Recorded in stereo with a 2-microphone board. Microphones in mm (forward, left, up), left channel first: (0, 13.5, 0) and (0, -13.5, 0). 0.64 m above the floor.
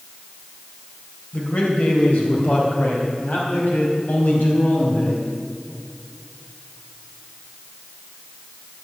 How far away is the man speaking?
About 3 m.